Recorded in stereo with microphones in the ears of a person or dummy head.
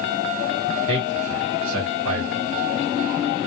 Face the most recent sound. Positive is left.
turn(degrees=-75)  # may be behind; listen again after turning